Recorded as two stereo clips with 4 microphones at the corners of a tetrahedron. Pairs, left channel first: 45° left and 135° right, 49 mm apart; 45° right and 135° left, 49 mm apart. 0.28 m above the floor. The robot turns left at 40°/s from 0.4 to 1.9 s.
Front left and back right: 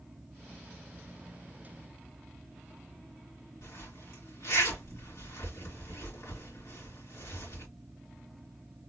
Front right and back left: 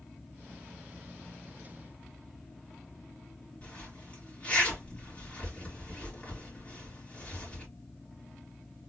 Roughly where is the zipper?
Ahead.